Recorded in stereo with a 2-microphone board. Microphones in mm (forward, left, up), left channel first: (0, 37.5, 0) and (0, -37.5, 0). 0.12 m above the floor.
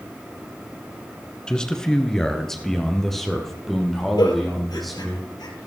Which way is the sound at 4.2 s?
65° left (ahead or behind).